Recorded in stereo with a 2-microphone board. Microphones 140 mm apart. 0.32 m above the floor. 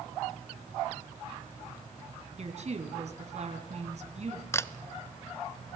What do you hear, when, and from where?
2.4 s a woman speaking: 55° right (ahead or behind), 3.5 m
4.5 s a camera shutter: 20° left (ahead or behind), 0.6 m